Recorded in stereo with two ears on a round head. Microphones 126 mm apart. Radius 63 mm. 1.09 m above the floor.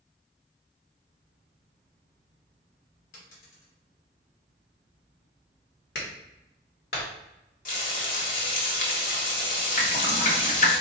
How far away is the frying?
About 1.4 m.